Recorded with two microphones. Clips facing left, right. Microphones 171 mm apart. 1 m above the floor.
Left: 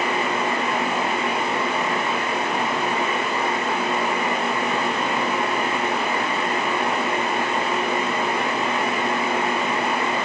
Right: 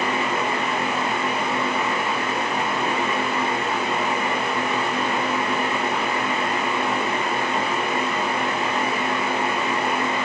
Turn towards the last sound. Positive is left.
No sound to turn to.